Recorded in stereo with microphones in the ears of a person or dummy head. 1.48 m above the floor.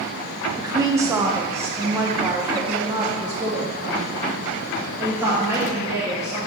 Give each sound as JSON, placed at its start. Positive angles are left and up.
{"t": 0.6, "sound": "a woman speaking", "side_deg": -15, "distance_m": 0.5}